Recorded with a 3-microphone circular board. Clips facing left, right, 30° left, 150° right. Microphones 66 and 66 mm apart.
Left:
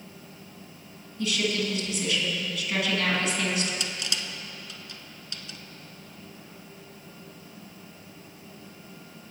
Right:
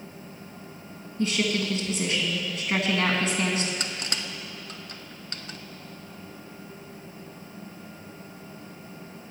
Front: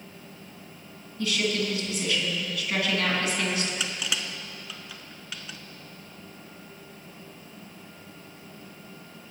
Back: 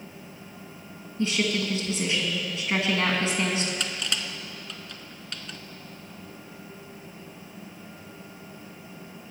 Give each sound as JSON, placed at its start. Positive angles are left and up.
{"t": 1.2, "sound": "a woman speaking", "azimuth_deg": -105, "distance_m": 2.0}
{"t": 3.8, "sound": "crushing", "azimuth_deg": -55, "distance_m": 0.5}